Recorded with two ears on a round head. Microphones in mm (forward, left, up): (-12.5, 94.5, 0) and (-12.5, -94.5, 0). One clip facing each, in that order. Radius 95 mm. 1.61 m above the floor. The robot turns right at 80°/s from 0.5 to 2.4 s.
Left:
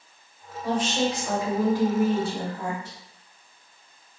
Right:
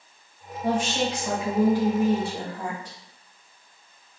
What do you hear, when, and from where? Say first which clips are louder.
0.6 s a woman speaking: even; 155° right, 1.5 m; by 3.0 s 10° right, 1.5 m